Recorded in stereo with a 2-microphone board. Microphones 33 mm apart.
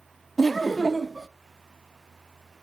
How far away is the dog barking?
I don't hear a dog barking.